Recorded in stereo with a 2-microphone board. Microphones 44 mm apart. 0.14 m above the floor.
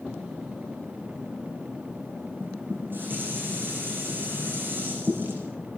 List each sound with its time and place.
2.4 s dishes clattering: 45° right (ahead or behind), 5.5 m